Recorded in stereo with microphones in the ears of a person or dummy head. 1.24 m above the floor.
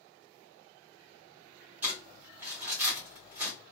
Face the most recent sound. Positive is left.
turn(degrees=-10)  # may be behind; listen again after turning